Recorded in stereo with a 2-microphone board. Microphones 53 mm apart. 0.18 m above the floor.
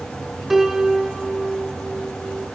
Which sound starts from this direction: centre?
A piano, at 0.5 s.